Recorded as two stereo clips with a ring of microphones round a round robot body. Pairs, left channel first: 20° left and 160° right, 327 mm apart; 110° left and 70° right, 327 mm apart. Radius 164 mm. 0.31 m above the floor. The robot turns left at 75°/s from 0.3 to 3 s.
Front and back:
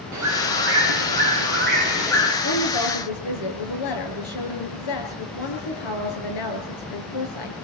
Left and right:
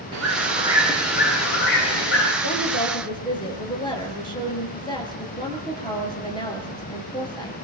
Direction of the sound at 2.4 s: 80° left.